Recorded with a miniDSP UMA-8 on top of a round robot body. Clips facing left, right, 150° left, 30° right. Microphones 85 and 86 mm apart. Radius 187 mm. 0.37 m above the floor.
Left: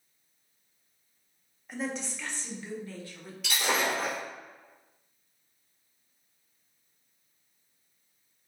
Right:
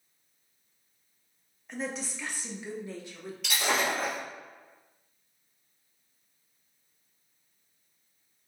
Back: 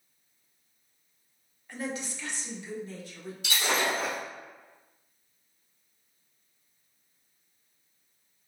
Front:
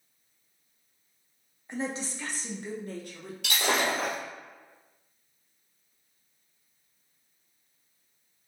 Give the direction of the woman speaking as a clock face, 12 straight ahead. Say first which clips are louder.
Left 1 dB, front 2 dB; 12 o'clock.